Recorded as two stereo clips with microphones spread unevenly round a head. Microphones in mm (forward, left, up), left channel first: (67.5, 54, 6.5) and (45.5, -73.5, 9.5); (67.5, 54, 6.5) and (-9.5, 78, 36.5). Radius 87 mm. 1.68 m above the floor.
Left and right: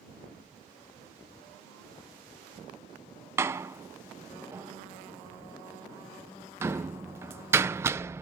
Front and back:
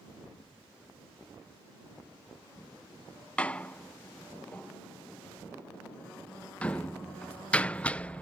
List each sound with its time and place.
3.4 s a door slam: 135° right